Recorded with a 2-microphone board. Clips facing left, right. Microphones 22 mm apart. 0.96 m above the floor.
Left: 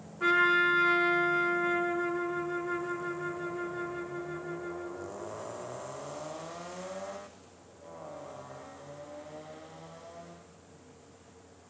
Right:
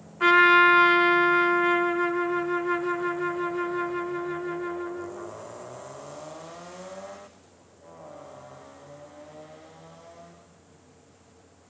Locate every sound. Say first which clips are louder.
0.2 s a trumpet: right 8 dB; 55° right (ahead or behind), 1.1 m